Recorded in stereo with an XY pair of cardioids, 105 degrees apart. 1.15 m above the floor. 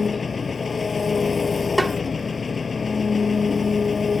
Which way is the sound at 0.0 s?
30° left.